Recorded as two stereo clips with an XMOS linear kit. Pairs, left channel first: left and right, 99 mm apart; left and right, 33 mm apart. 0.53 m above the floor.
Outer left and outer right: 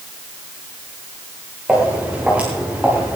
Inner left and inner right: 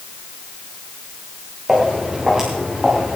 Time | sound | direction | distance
1.7 | footsteps | 15° right (ahead or behind) | 7 m